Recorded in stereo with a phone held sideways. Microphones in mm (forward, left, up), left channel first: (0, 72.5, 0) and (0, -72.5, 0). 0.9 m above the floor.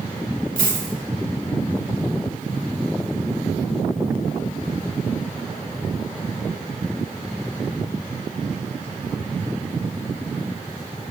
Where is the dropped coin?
65° right (ahead or behind), 1.3 m.